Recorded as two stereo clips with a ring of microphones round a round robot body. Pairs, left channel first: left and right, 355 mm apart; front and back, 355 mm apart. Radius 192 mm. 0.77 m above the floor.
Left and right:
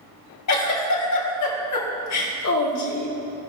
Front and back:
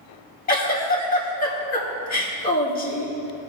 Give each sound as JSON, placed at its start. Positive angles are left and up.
{"t": 0.5, "sound": "a giggle", "azimuth_deg": 60, "distance_m": 1.9}